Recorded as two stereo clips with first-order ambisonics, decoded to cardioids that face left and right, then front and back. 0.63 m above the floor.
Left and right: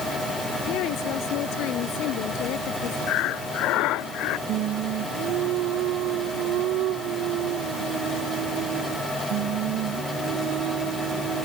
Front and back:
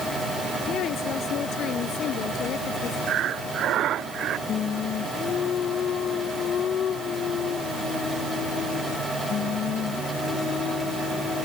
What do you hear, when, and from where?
0.6 s a woman speaking: 55° left
3.1 s breathing: 125° left
4.5 s singing: 55° right